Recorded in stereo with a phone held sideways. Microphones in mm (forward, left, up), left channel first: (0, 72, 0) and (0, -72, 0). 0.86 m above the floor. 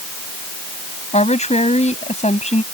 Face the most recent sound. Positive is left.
turn(degrees=55)  # may be behind; listen again after turning